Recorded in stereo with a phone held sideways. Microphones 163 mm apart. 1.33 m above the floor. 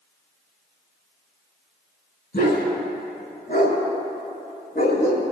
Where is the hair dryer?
I don't hear a hair dryer.